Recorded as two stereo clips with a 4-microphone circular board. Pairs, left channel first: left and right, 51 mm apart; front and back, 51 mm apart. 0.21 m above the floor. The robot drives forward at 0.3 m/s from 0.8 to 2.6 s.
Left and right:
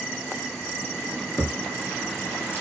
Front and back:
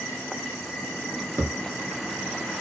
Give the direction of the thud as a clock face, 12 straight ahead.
7 o'clock.